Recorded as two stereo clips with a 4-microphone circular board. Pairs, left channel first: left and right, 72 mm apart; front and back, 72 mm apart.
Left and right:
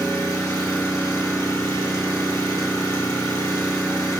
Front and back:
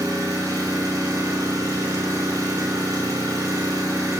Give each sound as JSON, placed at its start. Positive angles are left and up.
{"t": 0.0, "sound": "an engine running", "azimuth_deg": 135, "distance_m": 2.5}